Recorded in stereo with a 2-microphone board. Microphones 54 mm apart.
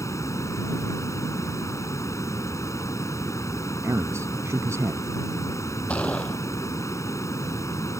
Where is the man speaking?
60° right (ahead or behind).